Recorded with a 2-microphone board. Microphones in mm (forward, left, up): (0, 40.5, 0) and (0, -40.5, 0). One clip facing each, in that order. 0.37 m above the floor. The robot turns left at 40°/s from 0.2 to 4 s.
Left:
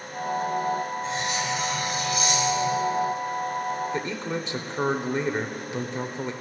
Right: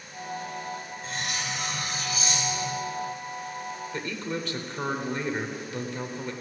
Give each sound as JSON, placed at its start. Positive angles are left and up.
{"t": 1.0, "sound": "cutlery clinking", "azimuth_deg": 160, "distance_m": 4.0}
{"t": 3.9, "sound": "a man speaking", "side_deg": 20, "distance_m": 0.8}